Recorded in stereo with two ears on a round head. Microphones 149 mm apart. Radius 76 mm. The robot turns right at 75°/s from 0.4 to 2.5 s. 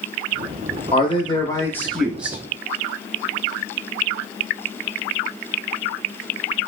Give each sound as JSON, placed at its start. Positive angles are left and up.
{"t": 0.9, "sound": "a man speaking", "azimuth_deg": 90, "distance_m": 0.7}